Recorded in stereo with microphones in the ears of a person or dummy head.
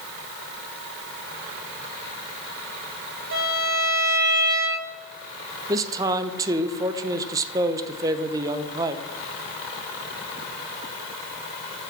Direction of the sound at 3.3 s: 60° right (ahead or behind).